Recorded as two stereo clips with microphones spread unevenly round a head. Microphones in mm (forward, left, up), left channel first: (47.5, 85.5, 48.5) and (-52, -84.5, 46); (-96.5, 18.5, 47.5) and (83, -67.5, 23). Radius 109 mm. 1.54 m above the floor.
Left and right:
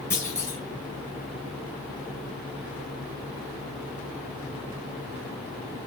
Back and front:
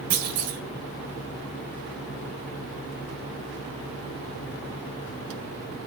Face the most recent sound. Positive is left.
turn(degrees=-15)